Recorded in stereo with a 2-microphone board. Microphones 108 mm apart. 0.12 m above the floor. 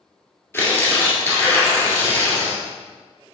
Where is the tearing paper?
20° left (ahead or behind), 2.0 m.